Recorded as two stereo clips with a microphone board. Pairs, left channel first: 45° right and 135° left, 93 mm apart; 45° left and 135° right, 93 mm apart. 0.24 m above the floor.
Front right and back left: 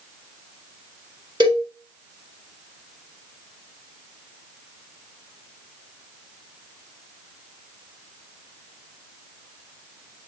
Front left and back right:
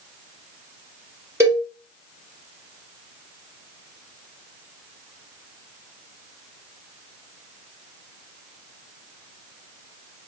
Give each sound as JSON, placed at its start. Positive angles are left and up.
{"t": 1.4, "sound": "a cowbell", "azimuth_deg": 165, "distance_m": 2.0}